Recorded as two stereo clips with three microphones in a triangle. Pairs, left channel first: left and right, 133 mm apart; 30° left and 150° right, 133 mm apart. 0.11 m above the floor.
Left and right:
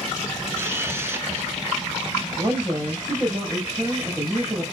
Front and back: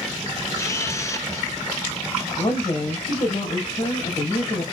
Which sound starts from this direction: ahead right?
A camera shutter, at 0.6 s.